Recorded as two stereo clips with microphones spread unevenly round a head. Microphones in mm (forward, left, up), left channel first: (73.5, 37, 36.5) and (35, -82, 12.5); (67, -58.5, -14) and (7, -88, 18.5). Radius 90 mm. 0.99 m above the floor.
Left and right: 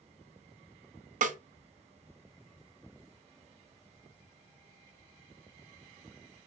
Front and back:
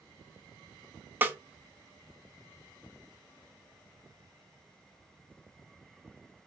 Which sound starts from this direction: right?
A snare drum, at 1.2 s.